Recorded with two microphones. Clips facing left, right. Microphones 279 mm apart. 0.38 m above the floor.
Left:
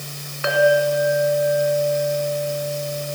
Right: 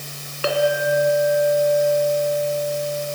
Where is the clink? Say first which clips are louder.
Left 3 dB; 40° right (ahead or behind), 3 m.